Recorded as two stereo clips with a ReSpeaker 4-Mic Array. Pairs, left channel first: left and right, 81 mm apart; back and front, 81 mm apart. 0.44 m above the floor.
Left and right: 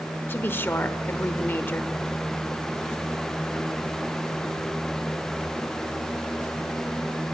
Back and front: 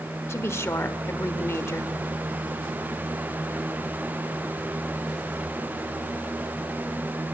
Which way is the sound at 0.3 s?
140° left.